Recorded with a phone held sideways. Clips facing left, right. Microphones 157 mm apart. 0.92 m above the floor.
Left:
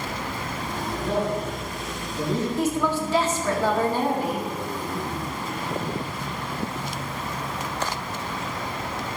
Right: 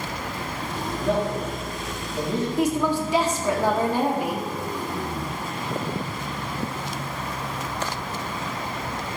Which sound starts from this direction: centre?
A woman speaking, at 2.6 s.